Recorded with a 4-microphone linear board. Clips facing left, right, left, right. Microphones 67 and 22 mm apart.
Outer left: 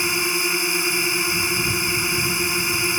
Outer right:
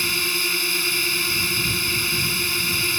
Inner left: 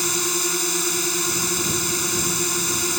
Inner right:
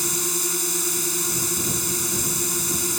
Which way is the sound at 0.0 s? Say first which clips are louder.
Outer left 3 dB, inner left 3 dB; 20° left (ahead or behind).